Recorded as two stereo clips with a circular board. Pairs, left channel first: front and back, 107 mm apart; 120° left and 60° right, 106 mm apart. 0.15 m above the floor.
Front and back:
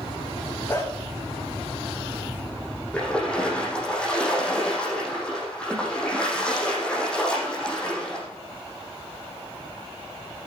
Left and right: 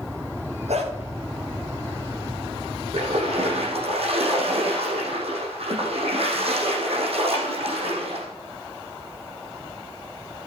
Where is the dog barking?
65° right, 8.5 m.